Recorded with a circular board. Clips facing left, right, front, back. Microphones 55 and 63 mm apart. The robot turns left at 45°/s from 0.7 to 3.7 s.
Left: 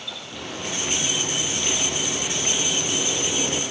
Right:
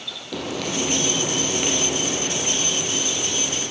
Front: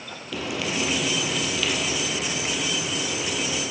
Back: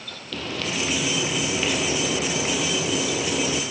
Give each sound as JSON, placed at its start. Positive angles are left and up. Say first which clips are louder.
{"t": 0.3, "sound": "frying", "louder": "right 6 dB, front 1 dB", "azimuth_deg": -80, "distance_m": 4.0}